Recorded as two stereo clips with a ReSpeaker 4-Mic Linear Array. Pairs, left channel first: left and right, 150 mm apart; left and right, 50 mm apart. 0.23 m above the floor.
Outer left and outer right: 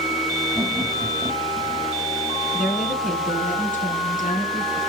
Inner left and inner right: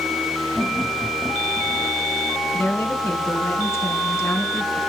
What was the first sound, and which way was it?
Laughter, 5° right (ahead or behind).